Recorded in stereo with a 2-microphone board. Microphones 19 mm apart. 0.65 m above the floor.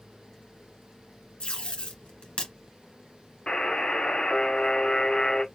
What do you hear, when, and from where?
1.4 s tape being pulled: 70° left (ahead or behind), 2 m
3.5 s a buzzer: 55° left (ahead or behind), 1.3 m